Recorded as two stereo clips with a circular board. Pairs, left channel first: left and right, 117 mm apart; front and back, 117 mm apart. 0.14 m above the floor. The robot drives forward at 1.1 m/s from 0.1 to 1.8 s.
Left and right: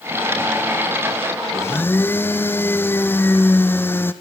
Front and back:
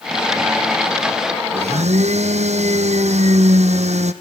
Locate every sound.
1.5 s a blender: 155° left, 0.8 m; by 4.1 s 160° left, 1.1 m